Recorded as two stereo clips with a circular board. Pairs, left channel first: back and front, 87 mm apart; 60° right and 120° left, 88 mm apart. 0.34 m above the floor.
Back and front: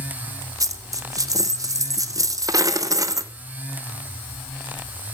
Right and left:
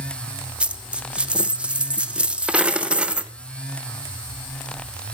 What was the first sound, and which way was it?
A dropped coin, 45° left.